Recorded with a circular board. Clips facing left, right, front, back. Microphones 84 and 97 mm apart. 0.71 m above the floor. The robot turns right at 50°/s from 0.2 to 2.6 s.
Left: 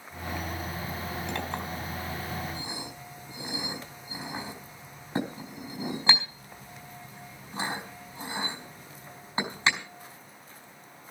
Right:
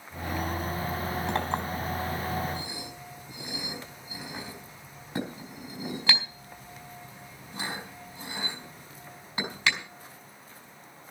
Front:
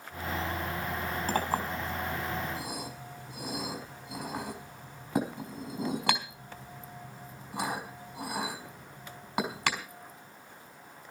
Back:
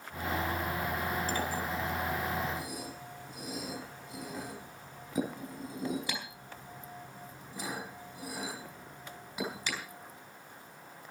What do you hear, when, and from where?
1.3 s a clink: 40° right, 4.5 m; by 9.8 s 25° left, 4.5 m